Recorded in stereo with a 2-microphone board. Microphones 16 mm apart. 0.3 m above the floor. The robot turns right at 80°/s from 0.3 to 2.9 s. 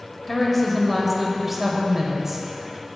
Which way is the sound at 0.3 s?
15° left (ahead or behind).